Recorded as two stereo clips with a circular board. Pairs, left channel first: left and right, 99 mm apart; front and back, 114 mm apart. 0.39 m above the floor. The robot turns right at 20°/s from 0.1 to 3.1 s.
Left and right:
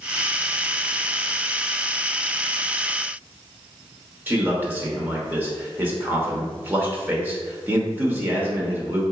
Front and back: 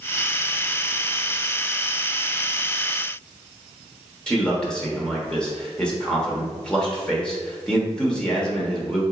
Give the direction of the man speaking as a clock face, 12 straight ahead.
2 o'clock.